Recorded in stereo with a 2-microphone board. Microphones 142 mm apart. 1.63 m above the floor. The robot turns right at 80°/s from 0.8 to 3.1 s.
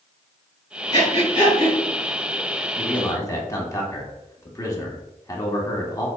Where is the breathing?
40° left (ahead or behind), 1.9 m; by 1.8 s 60° left (ahead or behind), 1.9 m.